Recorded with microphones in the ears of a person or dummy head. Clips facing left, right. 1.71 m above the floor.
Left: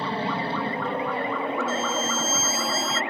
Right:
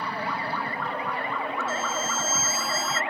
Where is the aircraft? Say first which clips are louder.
Left 4 dB; 30° left (ahead or behind).